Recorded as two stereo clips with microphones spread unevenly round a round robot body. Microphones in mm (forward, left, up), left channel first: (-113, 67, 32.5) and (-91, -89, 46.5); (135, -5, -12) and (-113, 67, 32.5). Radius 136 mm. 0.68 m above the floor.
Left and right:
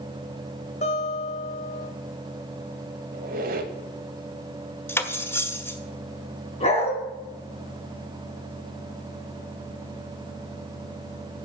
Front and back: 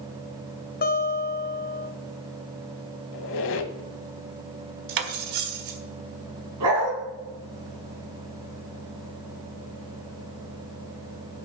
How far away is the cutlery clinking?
About 1.5 m.